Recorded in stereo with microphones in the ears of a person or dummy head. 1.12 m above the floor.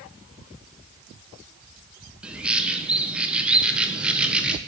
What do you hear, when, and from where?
2.2 s a bird: 5° right (ahead or behind), 0.5 m